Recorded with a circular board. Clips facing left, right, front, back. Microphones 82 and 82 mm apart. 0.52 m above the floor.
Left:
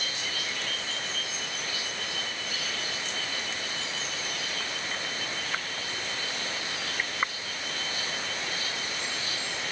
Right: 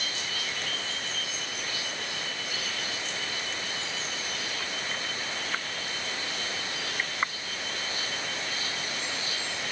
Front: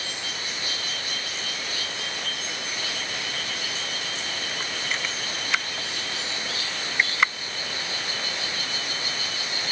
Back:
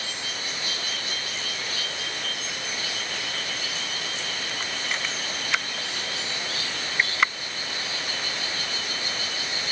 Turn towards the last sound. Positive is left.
No sound to turn to.